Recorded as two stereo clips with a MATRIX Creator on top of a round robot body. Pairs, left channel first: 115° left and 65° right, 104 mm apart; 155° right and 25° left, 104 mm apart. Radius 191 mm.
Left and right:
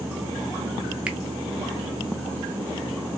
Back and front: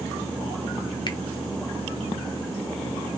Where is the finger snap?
145° right, 0.7 m.